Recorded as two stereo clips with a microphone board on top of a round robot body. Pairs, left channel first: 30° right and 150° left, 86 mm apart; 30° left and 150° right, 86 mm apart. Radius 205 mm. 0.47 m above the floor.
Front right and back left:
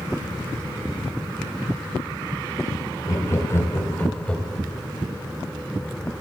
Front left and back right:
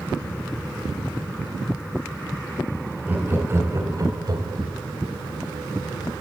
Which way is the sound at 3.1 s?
80° right.